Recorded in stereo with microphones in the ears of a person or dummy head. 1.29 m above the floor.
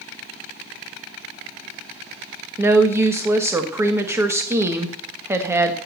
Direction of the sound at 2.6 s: 15° right (ahead or behind).